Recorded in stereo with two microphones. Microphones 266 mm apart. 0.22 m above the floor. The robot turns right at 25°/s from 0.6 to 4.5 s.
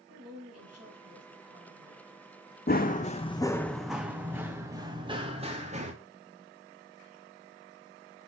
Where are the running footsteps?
35° left (ahead or behind), 0.8 m; by 5.9 s 25° right (ahead or behind), 1.8 m.